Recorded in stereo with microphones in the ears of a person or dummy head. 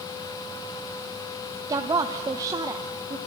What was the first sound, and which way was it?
A woman speaking, 15° right (ahead or behind).